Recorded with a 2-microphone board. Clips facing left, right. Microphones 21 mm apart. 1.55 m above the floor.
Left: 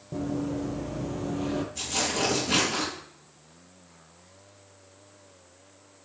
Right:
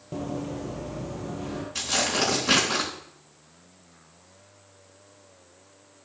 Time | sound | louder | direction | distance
0.1 | running footsteps | left 2 dB | 30° right (ahead or behind) | 2 m
1.8 | tearing paper | right 7 dB | 85° right | 7 m